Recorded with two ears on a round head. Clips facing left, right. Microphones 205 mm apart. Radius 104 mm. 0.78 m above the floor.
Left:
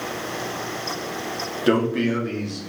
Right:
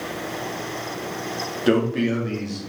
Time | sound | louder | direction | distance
1.7 | a man speaking | even | centre (ahead or behind) | 1.8 m